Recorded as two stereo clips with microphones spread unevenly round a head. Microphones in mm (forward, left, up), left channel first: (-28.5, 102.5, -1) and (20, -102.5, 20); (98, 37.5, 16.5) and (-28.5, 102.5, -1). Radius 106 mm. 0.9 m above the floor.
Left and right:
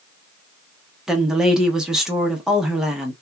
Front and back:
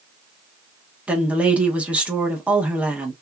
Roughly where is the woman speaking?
Behind.